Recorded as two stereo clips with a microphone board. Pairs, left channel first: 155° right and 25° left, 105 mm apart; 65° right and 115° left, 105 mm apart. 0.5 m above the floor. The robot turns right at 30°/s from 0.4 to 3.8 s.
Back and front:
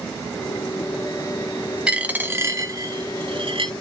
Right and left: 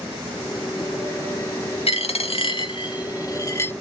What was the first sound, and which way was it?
A dropped coin, 60° right.